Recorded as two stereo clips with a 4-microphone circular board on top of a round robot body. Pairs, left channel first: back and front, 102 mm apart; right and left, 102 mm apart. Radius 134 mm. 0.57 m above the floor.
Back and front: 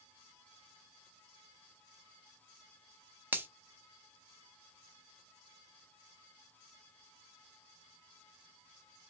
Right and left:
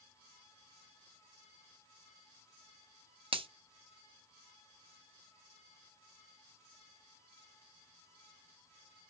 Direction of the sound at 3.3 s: 70° left.